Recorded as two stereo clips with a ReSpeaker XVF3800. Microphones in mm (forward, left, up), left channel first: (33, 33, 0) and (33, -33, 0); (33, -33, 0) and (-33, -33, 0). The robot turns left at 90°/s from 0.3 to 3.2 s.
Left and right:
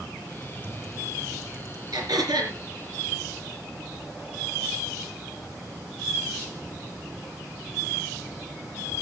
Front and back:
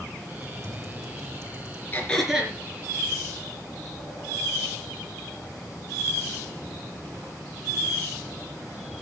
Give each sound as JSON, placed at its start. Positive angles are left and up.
{"t": 0.4, "sound": "typing on a keyboard", "azimuth_deg": -135, "distance_m": 2.5}
{"t": 1.9, "sound": "throat clearing", "azimuth_deg": -60, "distance_m": 3.5}